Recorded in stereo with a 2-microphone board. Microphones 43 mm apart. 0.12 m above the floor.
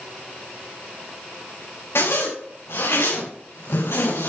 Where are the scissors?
I don't hear scissors.